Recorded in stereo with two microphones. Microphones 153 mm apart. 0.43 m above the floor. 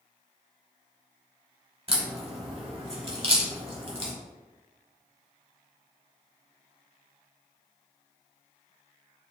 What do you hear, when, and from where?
1.9 s a crack: 35° right (ahead or behind), 0.9 m